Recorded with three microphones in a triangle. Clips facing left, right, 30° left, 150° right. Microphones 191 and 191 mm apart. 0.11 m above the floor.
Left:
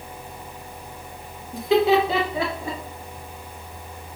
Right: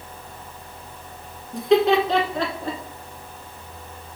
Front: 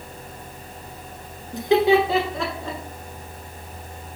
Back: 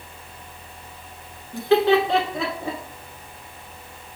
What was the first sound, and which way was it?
Laughter, 5° left.